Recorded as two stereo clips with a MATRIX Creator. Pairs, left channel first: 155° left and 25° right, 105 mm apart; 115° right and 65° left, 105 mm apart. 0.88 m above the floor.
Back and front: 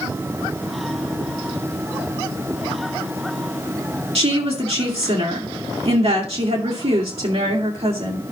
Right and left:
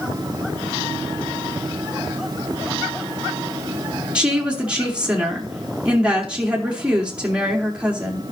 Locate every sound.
4.2 s a woman speaking: 10° right, 3 m